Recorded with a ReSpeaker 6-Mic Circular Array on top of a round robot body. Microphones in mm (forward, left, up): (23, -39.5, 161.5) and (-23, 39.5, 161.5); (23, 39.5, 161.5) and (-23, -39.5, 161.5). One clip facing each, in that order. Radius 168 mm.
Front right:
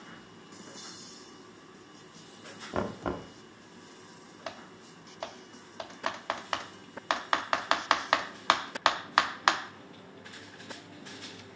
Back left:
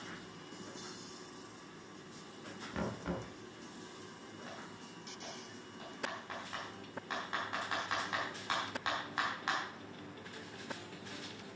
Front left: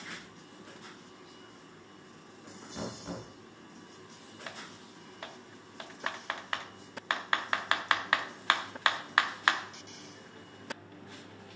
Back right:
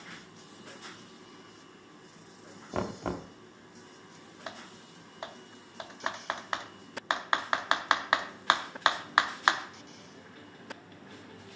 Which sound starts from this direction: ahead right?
Typing on a keyboard, at 4.5 s.